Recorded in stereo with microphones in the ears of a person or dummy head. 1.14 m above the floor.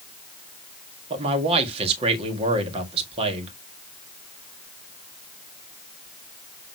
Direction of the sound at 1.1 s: 30° right (ahead or behind).